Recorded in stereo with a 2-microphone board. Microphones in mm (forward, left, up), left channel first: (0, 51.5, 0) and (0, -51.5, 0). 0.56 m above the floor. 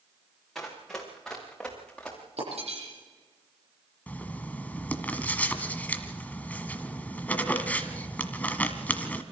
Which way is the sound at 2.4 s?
90° right.